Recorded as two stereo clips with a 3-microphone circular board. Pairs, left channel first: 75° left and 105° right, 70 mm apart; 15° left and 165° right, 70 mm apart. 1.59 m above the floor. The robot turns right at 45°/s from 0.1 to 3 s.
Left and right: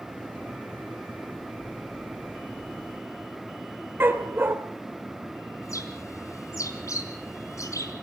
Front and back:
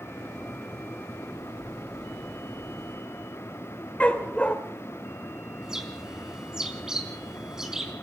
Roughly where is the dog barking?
Ahead right.